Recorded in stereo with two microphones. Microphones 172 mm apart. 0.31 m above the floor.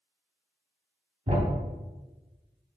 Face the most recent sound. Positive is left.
turn(degrees=-40)  # may be behind; listen again after turning